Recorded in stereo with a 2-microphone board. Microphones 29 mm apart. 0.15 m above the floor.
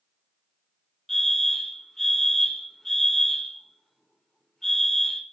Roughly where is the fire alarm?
Centre.